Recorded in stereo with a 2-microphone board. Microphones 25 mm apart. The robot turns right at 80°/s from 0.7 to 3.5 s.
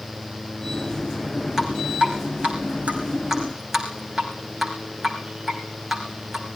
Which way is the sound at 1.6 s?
20° right (ahead or behind).